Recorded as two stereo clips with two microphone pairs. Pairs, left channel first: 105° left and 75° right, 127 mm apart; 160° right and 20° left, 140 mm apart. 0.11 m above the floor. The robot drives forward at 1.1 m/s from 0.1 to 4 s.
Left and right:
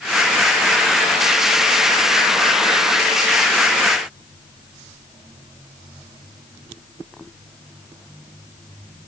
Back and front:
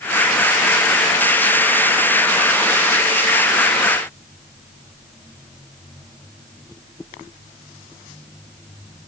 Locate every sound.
Only background noise.